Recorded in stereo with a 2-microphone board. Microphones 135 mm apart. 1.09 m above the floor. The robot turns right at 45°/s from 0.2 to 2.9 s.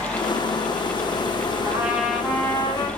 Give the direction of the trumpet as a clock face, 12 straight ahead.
1 o'clock.